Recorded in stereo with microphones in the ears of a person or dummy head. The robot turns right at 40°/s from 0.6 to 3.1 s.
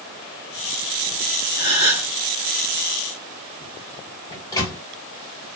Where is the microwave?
20° left (ahead or behind), 1.3 m.